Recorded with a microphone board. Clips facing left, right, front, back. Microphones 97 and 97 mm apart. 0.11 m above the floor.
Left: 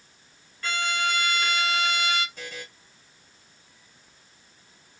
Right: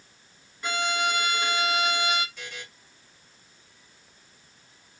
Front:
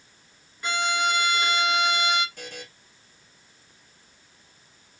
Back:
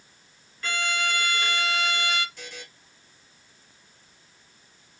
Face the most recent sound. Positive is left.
turn(degrees=35)